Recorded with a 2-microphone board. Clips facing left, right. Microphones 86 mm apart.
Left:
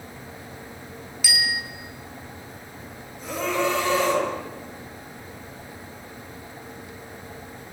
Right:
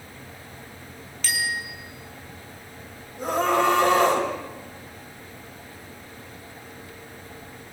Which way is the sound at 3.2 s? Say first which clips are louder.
Right 4 dB; 55° right (ahead or behind).